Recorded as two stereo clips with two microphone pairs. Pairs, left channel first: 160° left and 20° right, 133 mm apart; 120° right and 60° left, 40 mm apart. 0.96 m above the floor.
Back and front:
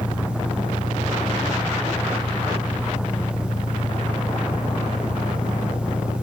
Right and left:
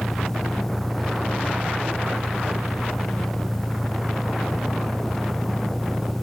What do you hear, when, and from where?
0.0 s an engine running: 175° left